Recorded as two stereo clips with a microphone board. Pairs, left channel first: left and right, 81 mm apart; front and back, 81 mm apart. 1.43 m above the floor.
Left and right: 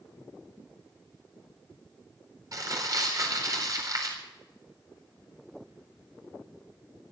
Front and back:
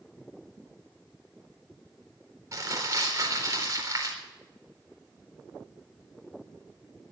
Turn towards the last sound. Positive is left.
turn(degrees=-130)